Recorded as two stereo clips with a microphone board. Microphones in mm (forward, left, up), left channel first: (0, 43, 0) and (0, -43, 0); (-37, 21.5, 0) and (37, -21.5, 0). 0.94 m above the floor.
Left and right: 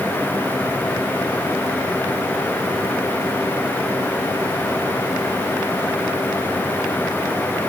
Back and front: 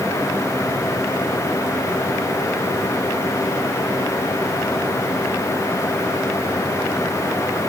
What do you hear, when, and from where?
Only background noise.